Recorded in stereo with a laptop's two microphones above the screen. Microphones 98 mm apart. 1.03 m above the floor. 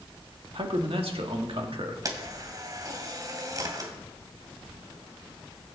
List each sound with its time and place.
0.6 s a man speaking: 70° right (ahead or behind), 2 m
2.0 s a camera shutter: 40° right (ahead or behind), 2.5 m